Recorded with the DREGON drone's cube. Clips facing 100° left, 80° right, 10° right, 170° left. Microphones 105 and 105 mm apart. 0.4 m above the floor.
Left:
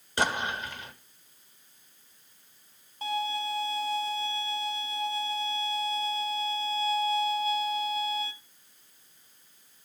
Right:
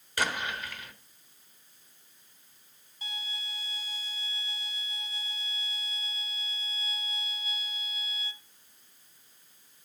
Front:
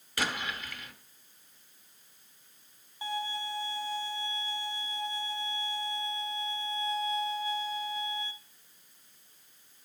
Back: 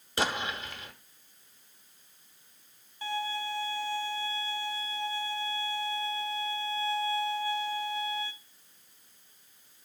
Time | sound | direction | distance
0.2 | an explosion | 135° left | 1.2 m
3.0 | a violin | 60° left | 0.8 m